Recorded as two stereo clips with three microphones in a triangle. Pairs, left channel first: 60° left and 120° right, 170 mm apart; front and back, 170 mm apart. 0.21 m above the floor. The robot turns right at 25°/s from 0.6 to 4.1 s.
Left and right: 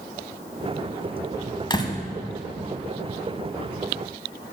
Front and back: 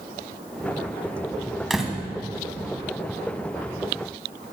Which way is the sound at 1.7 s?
90° left.